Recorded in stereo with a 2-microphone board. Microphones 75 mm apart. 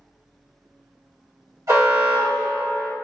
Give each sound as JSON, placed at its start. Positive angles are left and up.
{"t": 1.7, "sound": "an alarm", "side_deg": -50, "distance_m": 1.6}